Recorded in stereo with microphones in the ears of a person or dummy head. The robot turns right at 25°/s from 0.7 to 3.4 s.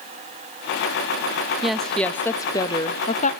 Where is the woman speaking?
Straight ahead, 0.6 m; by 3.3 s 40° left, 0.6 m.